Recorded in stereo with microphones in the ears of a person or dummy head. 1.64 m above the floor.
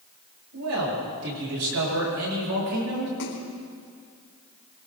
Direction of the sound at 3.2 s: 65° left (ahead or behind).